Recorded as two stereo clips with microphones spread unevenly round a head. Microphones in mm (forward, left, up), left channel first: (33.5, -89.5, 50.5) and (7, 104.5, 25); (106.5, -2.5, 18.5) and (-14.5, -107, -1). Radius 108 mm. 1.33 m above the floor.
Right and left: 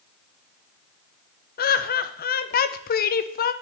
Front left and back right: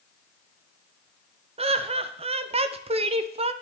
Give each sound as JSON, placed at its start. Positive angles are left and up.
{"t": 1.6, "sound": "laughter", "azimuth_deg": -115, "distance_m": 0.6}